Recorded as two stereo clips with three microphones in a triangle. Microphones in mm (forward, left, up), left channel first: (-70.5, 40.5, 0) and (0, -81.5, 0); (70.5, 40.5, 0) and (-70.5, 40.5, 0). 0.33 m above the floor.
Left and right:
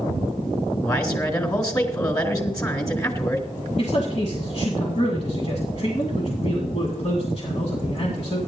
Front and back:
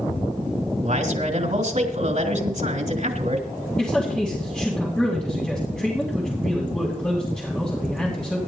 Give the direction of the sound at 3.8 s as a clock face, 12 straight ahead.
9 o'clock.